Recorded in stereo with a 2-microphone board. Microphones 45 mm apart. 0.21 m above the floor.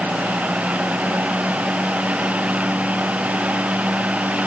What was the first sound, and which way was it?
Only background noise.